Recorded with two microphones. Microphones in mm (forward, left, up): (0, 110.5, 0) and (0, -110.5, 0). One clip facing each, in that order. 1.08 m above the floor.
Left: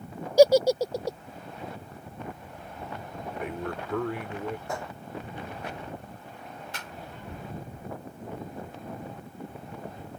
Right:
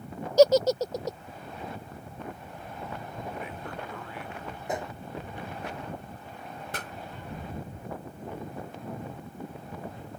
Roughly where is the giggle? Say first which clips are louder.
Left 1 dB; centre.